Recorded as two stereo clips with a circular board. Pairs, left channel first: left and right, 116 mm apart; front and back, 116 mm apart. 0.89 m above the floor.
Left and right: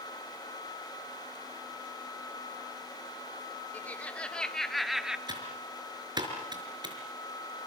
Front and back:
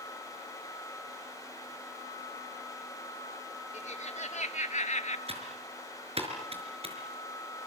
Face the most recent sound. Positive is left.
turn(degrees=-145)